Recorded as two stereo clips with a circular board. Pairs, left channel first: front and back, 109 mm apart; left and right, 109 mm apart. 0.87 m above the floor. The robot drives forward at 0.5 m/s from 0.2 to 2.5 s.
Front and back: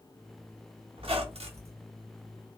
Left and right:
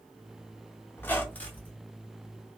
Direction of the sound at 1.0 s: 160° left.